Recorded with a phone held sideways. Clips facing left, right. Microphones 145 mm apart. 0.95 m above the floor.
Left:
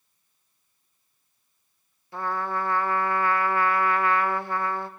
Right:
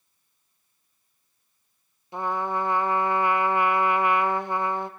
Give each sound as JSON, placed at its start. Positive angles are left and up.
{"t": 2.1, "sound": "a trumpet", "side_deg": -20, "distance_m": 0.7}